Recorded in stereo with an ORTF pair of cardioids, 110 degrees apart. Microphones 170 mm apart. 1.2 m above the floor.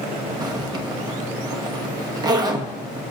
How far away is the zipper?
About 1.4 m.